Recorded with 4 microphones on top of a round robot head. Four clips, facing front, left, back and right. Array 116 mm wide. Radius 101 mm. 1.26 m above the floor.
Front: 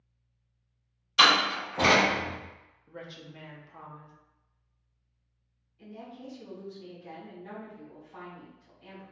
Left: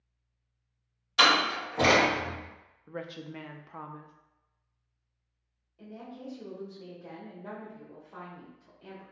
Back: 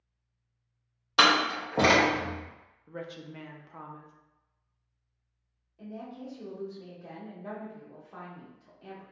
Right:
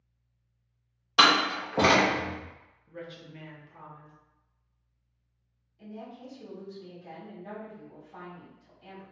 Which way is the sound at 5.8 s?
145° left.